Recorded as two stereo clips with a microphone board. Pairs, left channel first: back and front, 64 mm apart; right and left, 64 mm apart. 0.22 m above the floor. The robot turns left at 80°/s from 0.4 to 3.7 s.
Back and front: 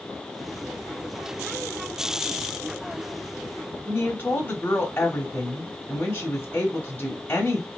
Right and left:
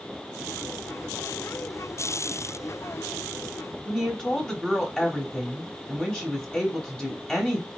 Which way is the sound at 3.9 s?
160° right.